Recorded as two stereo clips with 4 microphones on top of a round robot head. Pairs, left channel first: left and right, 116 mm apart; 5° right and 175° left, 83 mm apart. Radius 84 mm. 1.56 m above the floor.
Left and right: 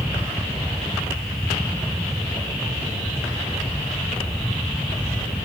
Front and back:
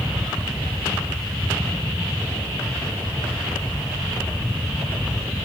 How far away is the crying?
No crying in this recording.